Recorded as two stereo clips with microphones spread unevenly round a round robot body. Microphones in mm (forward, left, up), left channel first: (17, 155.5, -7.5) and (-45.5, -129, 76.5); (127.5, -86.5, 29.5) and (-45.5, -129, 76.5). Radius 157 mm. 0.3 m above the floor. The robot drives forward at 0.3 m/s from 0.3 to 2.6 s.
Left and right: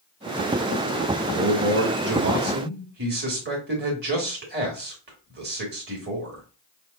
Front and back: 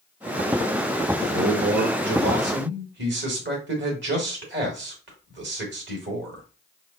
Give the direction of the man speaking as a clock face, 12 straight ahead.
5 o'clock.